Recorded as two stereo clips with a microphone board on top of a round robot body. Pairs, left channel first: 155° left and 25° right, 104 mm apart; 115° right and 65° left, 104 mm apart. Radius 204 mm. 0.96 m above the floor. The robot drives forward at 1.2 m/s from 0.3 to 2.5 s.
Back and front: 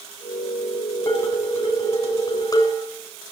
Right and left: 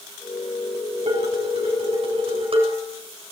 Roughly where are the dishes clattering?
Left.